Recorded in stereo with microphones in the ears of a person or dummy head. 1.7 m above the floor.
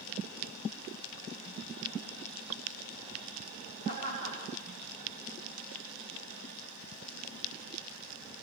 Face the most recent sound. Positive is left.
turn(degrees=-60)  # may be behind; listen again after turning